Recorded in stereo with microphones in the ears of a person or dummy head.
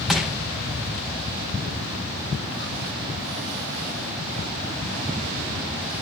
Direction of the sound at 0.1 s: Centre (ahead or behind).